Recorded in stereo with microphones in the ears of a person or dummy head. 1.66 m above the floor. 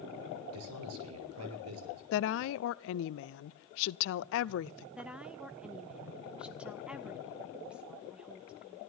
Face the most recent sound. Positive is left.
turn(degrees=-5)  # may be behind; listen again after turning